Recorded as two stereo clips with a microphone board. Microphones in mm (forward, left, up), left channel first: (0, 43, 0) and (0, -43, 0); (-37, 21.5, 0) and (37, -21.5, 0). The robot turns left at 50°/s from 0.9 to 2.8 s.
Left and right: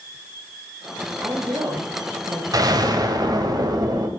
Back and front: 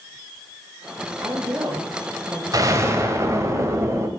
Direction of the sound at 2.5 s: 65° right.